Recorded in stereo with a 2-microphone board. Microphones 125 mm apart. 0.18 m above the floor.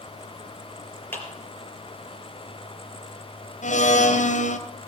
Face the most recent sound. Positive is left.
turn(degrees=75)  # may be behind; listen again after turning